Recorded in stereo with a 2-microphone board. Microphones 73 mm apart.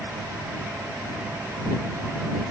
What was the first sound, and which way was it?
Only background noise.